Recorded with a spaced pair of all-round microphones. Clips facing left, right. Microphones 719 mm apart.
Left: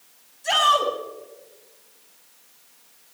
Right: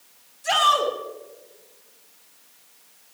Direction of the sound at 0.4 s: 40° right (ahead or behind).